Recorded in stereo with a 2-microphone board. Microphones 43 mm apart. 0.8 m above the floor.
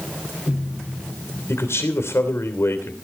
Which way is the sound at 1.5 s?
75° left (ahead or behind).